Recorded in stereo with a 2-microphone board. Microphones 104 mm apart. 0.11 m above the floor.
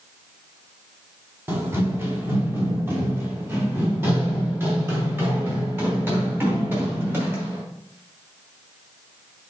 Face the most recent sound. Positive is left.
turn(degrees=-20)  # may be behind; listen again after turning